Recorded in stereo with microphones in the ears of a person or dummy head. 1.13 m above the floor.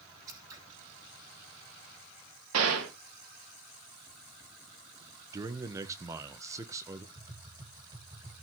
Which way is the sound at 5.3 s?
20° right (ahead or behind).